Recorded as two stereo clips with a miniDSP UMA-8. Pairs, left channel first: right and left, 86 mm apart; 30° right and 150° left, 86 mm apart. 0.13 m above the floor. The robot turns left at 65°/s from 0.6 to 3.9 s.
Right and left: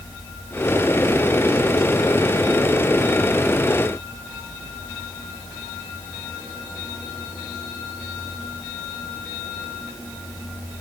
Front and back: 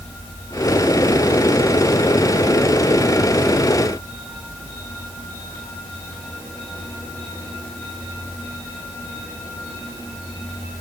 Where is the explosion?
I don't hear an explosion.